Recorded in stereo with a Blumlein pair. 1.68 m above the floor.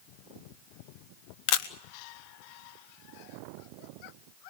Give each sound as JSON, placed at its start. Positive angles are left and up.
{"t": 1.5, "sound": "a camera shutter", "azimuth_deg": 45, "distance_m": 1.4}